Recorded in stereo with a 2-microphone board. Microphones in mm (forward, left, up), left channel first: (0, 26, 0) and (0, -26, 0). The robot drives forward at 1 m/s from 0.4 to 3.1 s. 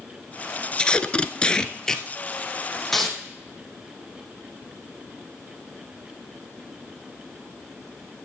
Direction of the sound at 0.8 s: 15° left (ahead or behind).